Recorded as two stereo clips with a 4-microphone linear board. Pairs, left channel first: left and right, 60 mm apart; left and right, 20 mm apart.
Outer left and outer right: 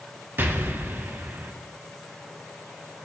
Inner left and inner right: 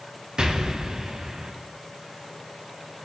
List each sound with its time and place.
0.4 s an explosion: 40° right (ahead or behind), 0.5 m